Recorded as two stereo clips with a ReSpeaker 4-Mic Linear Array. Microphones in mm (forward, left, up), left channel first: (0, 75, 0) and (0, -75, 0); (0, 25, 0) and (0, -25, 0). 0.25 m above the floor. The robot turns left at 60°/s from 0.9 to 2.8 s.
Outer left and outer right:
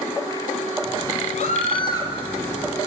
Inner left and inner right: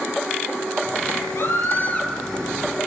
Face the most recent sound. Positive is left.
turn(degrees=-25)